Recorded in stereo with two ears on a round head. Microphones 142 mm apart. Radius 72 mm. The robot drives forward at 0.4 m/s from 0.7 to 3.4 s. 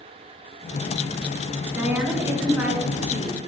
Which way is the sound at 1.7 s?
10° right (ahead or behind).